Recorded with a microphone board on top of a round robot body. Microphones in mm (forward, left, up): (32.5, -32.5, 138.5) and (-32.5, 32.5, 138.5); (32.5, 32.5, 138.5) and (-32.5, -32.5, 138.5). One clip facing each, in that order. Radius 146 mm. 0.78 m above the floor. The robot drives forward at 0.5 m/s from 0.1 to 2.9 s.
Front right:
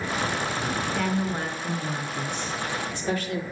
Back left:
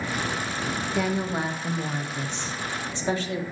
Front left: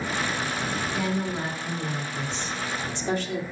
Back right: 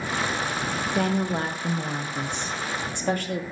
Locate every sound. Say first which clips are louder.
0.9 s a woman speaking: back left 3 dB, back right 6 dB; 145° right, 1.2 m; by 3.4 s 165° right, 2.0 m